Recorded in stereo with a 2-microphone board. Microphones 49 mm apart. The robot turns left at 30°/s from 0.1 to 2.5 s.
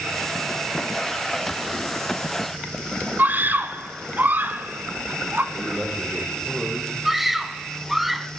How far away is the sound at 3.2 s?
About 1.9 m.